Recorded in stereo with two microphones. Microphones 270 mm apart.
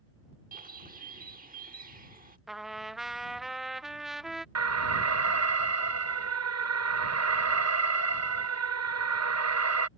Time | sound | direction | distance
0.5 | a bird | 30° right (ahead or behind) | ?
2.5 | a trumpet | centre (ahead or behind) | ?
4.5 | an alarm | 70° right (ahead or behind) | ?